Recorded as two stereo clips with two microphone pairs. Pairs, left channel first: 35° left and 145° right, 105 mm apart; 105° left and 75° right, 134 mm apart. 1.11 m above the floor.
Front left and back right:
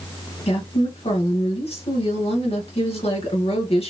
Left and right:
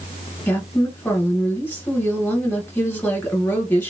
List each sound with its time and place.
0.5 s a woman speaking: 30° left, 1.4 m